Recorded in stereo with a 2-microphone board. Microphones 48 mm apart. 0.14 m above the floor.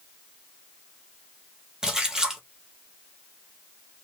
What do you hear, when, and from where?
1.8 s a splash: 10° right (ahead or behind), 1.0 m